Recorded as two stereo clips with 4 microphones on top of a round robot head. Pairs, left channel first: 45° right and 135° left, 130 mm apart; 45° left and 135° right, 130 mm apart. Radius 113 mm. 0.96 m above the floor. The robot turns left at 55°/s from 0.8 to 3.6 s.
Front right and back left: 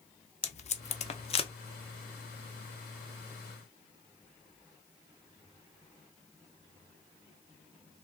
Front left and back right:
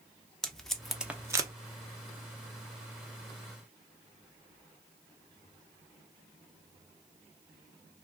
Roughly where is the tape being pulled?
Ahead right.